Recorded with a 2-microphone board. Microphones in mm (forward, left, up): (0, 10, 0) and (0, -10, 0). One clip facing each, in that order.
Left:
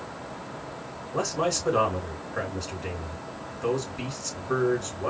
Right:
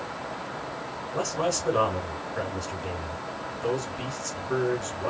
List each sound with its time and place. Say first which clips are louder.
1.1 s a man speaking: left 1 dB; 15° left (ahead or behind), 3 m